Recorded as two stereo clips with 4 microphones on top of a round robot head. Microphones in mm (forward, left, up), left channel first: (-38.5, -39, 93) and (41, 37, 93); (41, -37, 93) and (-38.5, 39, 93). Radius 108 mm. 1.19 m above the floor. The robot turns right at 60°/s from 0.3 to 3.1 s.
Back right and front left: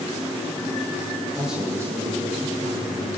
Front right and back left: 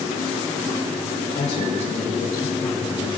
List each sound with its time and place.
1.4 s a man speaking: 50° right, 5.5 m; by 3.1 s 55° left, 5.5 m